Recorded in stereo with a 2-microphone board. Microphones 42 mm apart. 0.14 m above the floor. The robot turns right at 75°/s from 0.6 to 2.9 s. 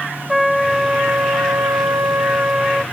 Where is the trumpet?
Straight behind; by 2.8 s 15° right.